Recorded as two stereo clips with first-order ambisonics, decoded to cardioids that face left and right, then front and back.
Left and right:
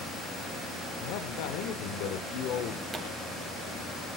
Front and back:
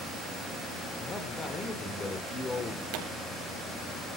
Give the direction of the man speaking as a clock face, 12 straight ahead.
10 o'clock.